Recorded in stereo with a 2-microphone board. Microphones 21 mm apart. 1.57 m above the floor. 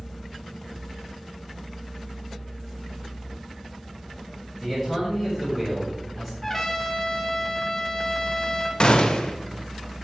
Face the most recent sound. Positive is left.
turn(degrees=50)  # may be behind; listen again after turning